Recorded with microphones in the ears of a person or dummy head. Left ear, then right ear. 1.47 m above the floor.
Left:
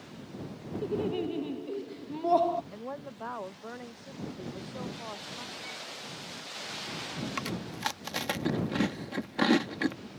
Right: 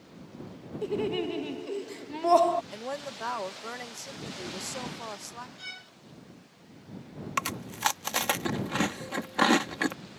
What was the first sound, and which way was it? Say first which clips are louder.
Laughter: right 2 dB; 55° right (ahead or behind).